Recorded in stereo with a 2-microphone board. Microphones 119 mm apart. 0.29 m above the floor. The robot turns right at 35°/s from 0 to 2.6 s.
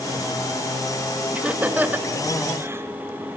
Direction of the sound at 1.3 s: 10° right (ahead or behind).